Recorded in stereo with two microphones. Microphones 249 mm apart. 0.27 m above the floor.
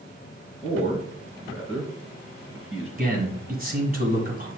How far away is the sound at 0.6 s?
About 2.5 m.